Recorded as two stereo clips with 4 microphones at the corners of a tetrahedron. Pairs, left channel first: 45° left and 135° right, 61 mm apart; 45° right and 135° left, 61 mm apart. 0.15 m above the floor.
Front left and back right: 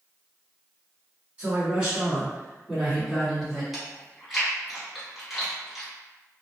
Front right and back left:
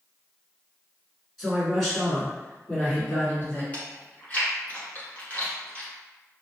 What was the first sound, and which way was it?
A man speaking, 140° right.